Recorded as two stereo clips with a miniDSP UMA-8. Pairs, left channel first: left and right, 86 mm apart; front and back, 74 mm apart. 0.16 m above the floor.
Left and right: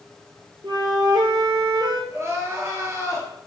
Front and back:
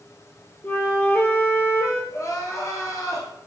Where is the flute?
65° right, 1.4 m.